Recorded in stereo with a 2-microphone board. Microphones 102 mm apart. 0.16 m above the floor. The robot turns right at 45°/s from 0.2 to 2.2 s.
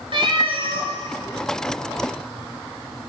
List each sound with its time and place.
0.1 s a cat meowing: 105° right, 1.4 m; by 0.9 s 75° right, 1.4 m